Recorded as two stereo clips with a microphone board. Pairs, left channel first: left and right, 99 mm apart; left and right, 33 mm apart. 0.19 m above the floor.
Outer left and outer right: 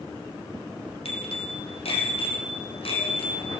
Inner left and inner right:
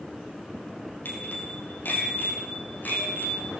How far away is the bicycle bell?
About 5.5 m.